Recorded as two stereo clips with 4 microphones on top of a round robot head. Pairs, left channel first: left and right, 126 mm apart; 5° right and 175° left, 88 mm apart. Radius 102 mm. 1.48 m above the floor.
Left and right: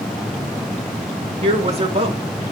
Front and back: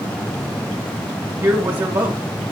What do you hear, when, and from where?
1.4 s a man speaking: 130° right, 1.4 m